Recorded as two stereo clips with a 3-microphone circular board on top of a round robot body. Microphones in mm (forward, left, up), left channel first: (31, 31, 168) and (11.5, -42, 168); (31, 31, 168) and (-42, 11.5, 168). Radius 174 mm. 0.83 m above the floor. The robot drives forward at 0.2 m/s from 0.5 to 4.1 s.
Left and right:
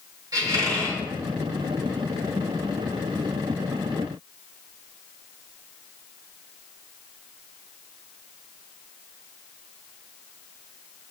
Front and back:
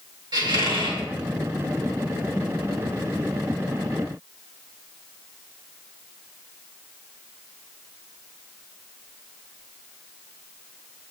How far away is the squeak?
About 3 m.